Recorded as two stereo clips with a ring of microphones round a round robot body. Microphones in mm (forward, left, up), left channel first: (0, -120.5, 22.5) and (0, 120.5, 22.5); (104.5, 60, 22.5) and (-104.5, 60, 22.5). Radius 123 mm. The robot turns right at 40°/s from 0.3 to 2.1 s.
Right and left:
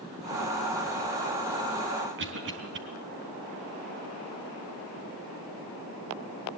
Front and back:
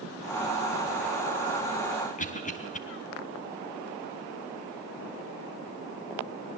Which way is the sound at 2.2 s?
50° left.